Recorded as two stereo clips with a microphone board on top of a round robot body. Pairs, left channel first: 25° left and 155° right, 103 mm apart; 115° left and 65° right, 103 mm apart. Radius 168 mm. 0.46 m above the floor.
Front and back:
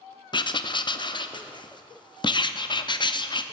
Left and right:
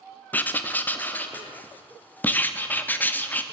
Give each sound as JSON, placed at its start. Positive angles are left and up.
{"t": 0.3, "sound": "writing", "azimuth_deg": 45, "distance_m": 0.9}